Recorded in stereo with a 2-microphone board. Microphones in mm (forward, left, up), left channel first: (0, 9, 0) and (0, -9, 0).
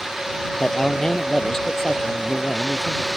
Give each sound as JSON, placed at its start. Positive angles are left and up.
{"t": 0.6, "sound": "a man speaking", "side_deg": 30}